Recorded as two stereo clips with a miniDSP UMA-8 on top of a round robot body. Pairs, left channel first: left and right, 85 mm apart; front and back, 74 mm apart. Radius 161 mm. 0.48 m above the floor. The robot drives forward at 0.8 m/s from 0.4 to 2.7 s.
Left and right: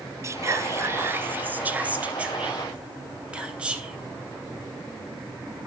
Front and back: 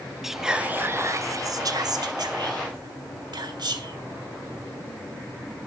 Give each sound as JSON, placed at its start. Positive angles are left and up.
{"t": 0.2, "sound": "whispering", "azimuth_deg": -100, "distance_m": 0.8}